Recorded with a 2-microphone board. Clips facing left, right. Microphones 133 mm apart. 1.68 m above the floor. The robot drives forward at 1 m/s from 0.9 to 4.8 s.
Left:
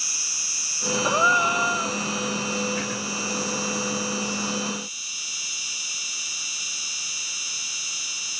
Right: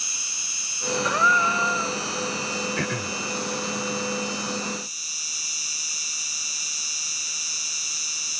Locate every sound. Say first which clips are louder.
0.0 s an insect: even; 25° right (ahead or behind); by 8.4 s 40° right (ahead or behind)
1.0 s a gasp: left 1 dB; 25° left (ahead or behind); by 2.0 s 15° left (ahead or behind)
2.8 s throat clearing: right 1 dB; 65° right (ahead or behind); by 3.2 s 70° right (ahead or behind)